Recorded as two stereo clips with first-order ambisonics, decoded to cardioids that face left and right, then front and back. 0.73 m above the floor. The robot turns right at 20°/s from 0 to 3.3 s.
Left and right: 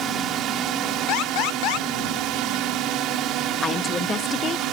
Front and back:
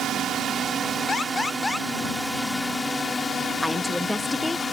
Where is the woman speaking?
70° left.